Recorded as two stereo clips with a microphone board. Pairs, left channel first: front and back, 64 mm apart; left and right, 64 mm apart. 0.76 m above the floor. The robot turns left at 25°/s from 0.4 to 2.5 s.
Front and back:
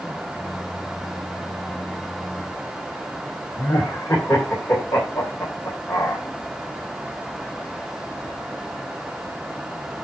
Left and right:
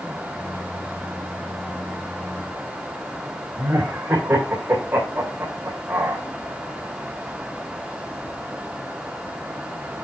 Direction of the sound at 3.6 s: 40° right.